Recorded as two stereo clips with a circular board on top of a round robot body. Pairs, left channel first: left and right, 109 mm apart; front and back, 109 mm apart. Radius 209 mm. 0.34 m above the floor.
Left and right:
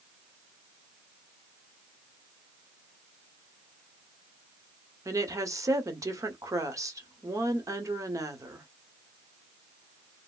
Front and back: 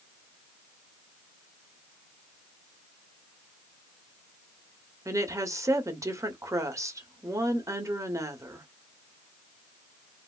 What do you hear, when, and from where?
5.0 s a woman speaking: 135° right, 1.4 m